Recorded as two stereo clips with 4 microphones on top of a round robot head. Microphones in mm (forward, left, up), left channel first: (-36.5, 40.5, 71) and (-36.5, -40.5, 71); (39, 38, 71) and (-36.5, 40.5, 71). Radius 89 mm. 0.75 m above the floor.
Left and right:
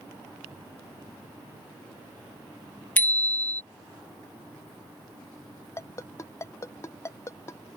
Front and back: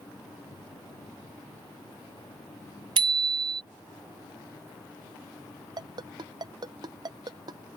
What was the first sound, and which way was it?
A bicycle bell, 160° left.